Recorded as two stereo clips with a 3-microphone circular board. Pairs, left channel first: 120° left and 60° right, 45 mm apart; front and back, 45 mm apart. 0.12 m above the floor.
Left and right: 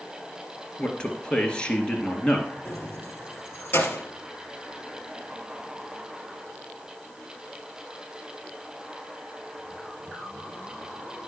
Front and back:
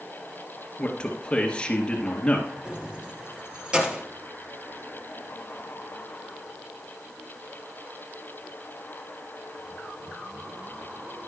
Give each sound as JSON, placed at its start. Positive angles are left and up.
{"t": 0.8, "sound": "a man speaking", "azimuth_deg": 60, "distance_m": 1.9}
{"t": 2.6, "sound": "keys jangling", "azimuth_deg": 115, "distance_m": 1.7}